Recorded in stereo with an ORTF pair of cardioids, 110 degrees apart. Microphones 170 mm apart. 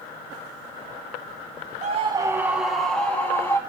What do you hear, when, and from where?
1.8 s a scream: 45° right, 0.9 m; by 3.6 s 10° left, 2.5 m